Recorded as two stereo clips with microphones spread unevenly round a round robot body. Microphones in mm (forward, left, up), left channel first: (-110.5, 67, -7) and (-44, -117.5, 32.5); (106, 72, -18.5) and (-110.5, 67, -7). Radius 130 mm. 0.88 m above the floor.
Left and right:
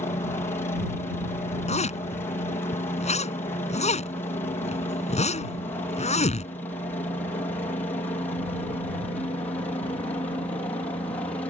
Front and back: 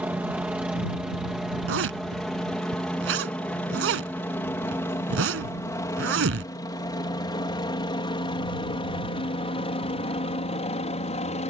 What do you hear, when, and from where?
0.0 s a helicopter: 105° left; by 11.5 s 45° left
1.7 s a zipper: 170° left